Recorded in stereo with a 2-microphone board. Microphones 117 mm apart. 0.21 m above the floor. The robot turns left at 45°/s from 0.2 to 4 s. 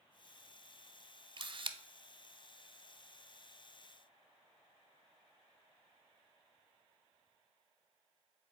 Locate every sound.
1.4 s a camera shutter: 40° right (ahead or behind), 0.5 m; by 1.8 s 45° right (ahead or behind), 0.5 m